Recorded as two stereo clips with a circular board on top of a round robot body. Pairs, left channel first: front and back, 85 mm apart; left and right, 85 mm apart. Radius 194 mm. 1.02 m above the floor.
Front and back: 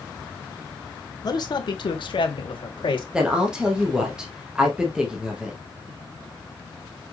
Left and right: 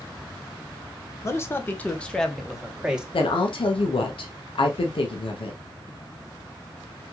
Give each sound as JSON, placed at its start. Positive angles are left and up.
{"t": 1.2, "sound": "a man speaking", "azimuth_deg": 35, "distance_m": 1.2}
{"t": 3.1, "sound": "a woman speaking", "azimuth_deg": 100, "distance_m": 1.2}